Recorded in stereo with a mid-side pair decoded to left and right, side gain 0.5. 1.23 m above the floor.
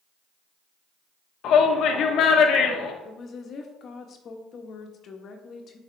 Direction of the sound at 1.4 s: 65° left.